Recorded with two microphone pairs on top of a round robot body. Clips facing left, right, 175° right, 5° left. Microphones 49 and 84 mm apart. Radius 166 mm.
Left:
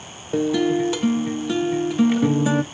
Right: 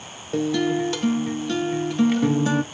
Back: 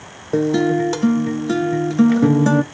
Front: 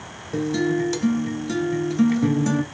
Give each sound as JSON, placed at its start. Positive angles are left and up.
{"t": 0.3, "sound": "a guitar", "azimuth_deg": 175, "distance_m": 0.8}